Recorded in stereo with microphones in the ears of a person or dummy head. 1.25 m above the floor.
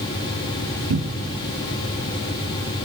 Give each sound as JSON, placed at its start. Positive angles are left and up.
{"t": 0.9, "sound": "a cupboard door", "side_deg": -65, "distance_m": 1.7}